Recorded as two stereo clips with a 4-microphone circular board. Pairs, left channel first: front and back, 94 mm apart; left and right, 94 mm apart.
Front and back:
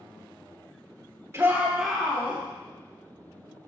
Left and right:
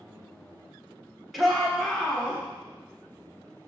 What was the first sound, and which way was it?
A shout, straight behind.